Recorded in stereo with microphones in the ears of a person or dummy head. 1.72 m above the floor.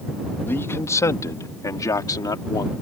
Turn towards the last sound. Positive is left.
turn(degrees=20)  # may be behind; listen again after turning